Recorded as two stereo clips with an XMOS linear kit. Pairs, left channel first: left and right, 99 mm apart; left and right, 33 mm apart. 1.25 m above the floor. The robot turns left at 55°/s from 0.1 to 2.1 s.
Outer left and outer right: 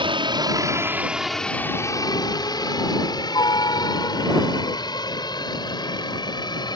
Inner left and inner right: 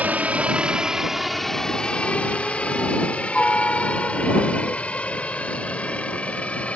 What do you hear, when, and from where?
0.0 s a helicopter: 60° right (ahead or behind); by 6.8 s 45° left (ahead or behind)